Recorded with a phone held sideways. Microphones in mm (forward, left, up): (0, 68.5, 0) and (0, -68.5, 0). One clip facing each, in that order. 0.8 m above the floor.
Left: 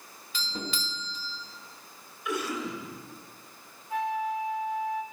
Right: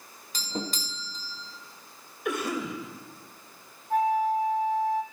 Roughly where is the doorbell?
Right.